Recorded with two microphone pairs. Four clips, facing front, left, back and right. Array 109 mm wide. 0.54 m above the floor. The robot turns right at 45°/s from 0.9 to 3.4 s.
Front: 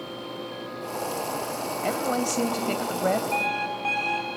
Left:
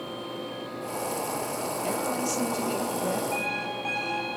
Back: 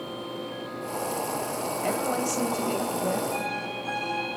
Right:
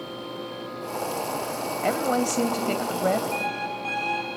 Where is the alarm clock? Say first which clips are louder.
Right 2 dB, front 3 dB; 15° left, 6 m.